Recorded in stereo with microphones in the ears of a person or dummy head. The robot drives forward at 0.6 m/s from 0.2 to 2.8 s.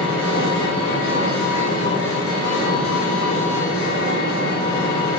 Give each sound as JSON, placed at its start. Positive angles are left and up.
{"t": 0.0, "sound": "an engine running", "side_deg": 70, "distance_m": 3.0}